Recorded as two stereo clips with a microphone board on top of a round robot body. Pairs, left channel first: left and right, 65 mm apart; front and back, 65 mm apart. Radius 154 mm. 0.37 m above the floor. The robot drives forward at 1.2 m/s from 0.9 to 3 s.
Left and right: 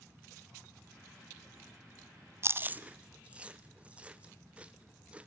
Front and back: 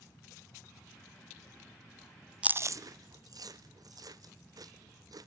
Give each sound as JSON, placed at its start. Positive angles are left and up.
{"t": 2.4, "sound": "chewing", "azimuth_deg": -110, "distance_m": 0.5}